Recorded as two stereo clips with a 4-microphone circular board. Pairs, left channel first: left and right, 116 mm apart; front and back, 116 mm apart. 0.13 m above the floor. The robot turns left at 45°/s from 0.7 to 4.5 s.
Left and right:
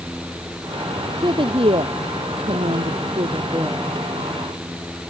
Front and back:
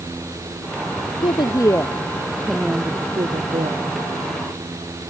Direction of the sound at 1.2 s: 40° right.